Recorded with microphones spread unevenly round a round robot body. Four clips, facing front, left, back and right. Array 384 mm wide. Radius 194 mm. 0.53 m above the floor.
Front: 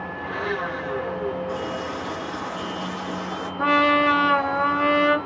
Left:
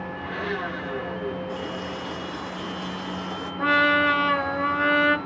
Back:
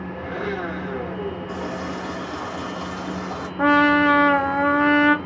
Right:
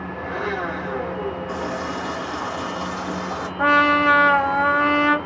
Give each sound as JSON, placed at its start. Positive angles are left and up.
{"t": 0.2, "sound": "a blender", "azimuth_deg": -165, "distance_m": 1.6}
{"t": 1.5, "sound": "a running tap", "azimuth_deg": -140, "distance_m": 2.0}
{"t": 3.6, "sound": "a trumpet", "azimuth_deg": -170, "distance_m": 0.5}